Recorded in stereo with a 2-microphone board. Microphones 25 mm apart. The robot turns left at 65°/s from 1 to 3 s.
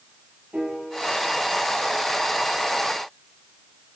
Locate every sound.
0.5 s a piano: 65° right (ahead or behind), 9.5 m; by 1.3 s 80° right, 9.5 m